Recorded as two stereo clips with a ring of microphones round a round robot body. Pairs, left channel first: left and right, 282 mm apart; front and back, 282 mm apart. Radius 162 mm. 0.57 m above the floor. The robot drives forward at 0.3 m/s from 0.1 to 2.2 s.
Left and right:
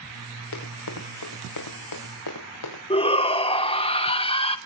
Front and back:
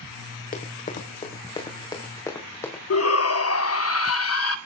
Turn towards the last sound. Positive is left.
turn(degrees=20)